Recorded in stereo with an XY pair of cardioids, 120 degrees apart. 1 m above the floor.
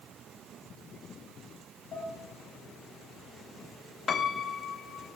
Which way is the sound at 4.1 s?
40° left.